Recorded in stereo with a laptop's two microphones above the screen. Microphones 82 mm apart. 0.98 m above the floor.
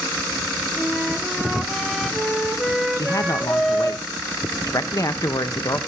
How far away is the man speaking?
About 0.8 m.